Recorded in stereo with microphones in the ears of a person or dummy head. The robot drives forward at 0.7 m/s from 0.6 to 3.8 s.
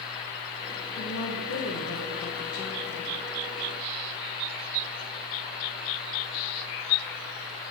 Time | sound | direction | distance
1.0 | a woman speaking | 55° left (ahead or behind) | 1.3 m